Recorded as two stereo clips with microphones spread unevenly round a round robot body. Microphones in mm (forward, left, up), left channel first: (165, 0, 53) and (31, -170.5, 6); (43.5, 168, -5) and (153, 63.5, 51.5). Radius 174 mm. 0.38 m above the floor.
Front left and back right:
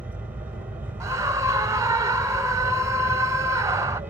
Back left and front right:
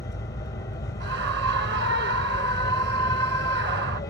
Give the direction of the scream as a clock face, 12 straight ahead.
2 o'clock.